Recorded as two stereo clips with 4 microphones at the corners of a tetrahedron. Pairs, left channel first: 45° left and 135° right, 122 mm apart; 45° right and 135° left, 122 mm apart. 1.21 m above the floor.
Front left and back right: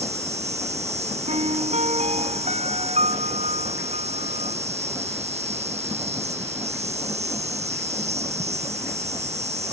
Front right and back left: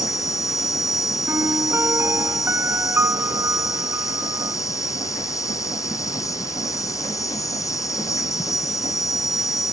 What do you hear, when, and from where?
0.0 s an insect: 110° right
1.3 s a piano: 155° right